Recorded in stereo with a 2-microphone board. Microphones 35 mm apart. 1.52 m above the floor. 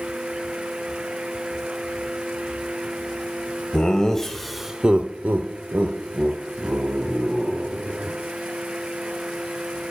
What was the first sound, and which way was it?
Laughter, 20° left (ahead or behind).